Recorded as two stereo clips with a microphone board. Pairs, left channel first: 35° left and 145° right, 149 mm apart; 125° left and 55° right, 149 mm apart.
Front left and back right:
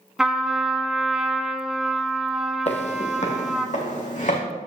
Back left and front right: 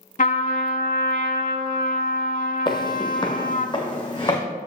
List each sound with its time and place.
0.2 s a trumpet: 130° left, 0.8 m
2.7 s footsteps: 70° left, 1.1 m; by 4.4 s 65° left, 2 m